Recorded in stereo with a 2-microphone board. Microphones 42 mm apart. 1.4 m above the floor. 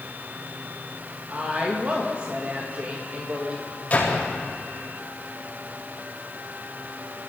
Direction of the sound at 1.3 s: 35° right (ahead or behind).